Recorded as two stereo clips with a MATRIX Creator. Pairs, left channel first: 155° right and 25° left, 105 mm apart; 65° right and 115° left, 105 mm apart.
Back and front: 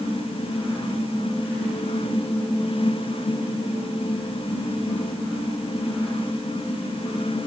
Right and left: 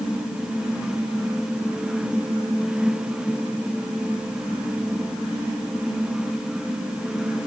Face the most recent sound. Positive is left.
No sound to turn to.